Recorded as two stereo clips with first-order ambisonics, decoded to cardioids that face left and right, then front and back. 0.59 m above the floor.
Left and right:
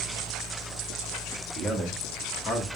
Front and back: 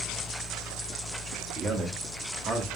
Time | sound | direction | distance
1.6 | a man speaking | 145° right | 0.9 m